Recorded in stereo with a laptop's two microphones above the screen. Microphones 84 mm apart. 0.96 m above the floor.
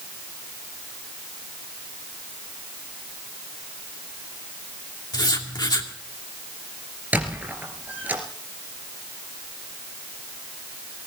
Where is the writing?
60° left (ahead or behind), 2.5 m.